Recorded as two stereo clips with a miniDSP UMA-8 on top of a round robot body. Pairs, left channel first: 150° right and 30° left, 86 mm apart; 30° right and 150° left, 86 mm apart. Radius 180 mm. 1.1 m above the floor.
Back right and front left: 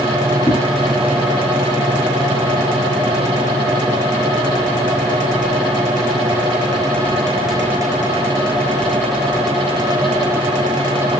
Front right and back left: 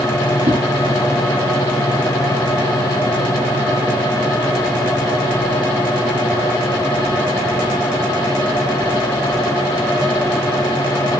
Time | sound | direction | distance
0.5 | a whoosh | 130° left | 1.6 m